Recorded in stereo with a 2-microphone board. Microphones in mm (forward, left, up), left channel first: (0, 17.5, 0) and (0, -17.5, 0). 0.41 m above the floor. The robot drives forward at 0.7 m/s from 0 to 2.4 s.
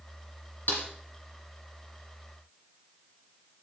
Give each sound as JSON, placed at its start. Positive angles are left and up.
{"t": 0.7, "sound": "a snare drum", "side_deg": 60, "distance_m": 2.5}